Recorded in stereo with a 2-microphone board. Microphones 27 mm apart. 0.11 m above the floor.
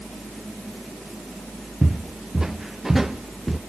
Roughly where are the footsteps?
Right.